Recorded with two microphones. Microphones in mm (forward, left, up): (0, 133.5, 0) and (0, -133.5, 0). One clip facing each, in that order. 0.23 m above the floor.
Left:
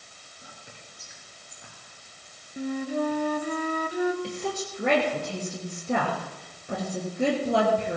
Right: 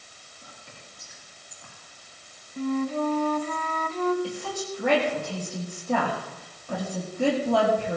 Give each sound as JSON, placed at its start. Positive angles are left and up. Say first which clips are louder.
{"t": 0.4, "sound": "whispering", "louder": "even", "side_deg": 20, "distance_m": 3.5}
{"t": 2.6, "sound": "a flute", "louder": "right 2 dB", "side_deg": 15, "distance_m": 0.8}
{"t": 4.2, "sound": "a woman speaking", "louder": "left 1 dB", "side_deg": 25, "distance_m": 4.0}